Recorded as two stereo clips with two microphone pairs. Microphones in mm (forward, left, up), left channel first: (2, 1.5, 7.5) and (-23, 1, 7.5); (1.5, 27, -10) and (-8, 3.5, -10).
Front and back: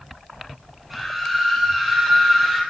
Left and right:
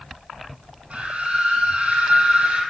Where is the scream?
95° right, 4.5 m.